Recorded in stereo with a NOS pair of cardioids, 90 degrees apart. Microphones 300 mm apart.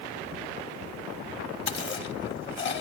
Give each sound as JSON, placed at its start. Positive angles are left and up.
{"t": 1.7, "sound": "chewing", "azimuth_deg": 40, "distance_m": 1.4}